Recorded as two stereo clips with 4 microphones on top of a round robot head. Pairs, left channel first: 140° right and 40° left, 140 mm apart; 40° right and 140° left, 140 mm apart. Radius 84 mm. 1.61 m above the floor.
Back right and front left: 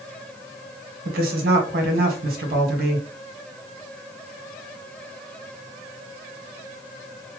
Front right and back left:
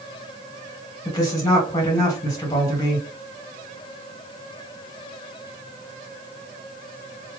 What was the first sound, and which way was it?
A woman speaking, 25° left.